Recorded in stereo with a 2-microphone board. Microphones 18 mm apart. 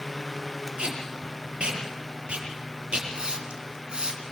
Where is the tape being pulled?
80° right, 8 m.